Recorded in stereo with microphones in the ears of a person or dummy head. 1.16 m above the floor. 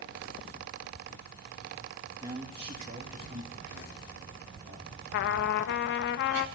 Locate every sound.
2.2 s a man speaking: 20° right (ahead or behind), 1.8 m; by 4.9 s 55° right (ahead or behind), 4.5 m
5.1 s a trumpet: 60° left (ahead or behind), 0.8 m